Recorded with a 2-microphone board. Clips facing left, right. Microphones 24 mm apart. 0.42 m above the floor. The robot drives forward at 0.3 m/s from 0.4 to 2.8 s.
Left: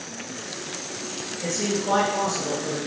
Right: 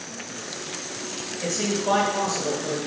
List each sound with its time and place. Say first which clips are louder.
1.4 s a man speaking: right 1 dB; 30° right (ahead or behind), 0.9 m